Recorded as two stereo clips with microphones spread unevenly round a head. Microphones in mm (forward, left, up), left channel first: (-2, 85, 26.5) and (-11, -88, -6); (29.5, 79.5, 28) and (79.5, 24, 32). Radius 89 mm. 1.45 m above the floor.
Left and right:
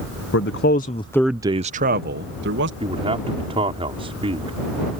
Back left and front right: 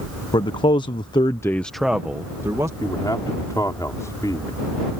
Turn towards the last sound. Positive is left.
turn(degrees=-155)